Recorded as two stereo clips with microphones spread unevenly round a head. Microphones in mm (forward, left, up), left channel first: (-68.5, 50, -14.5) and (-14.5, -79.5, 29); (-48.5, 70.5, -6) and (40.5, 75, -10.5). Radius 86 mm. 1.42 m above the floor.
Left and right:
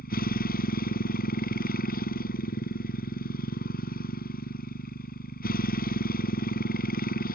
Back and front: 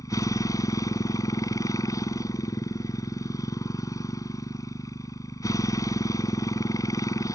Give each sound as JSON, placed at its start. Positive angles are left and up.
{"t": 0.0, "sound": "a motorcycle", "azimuth_deg": 135}